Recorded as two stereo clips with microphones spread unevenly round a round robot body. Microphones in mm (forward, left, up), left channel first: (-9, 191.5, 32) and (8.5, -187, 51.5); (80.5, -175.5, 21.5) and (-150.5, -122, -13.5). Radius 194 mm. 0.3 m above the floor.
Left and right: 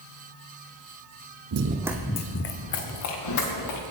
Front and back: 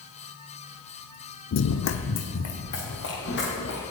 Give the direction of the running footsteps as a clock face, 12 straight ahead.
1 o'clock.